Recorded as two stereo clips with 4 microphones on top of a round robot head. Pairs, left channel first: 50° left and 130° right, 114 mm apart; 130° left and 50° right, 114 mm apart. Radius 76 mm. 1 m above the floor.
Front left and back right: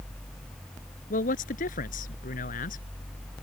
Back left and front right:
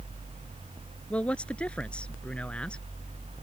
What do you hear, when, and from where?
1.1 s a man speaking: 50° left